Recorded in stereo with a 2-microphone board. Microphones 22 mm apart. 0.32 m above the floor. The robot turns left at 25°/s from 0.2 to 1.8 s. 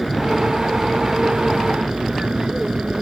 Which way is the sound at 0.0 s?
Centre (ahead or behind).